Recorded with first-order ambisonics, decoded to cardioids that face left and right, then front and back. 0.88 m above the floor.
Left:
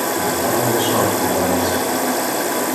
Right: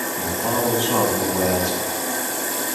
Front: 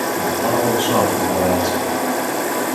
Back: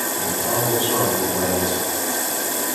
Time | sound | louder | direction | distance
0.2 | a man speaking | left 2 dB, front 5 dB | 20° left | 5.5 m